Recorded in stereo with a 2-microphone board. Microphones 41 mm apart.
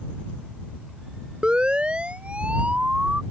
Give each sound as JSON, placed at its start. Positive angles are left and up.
{"t": 1.4, "sound": "a siren", "side_deg": -25}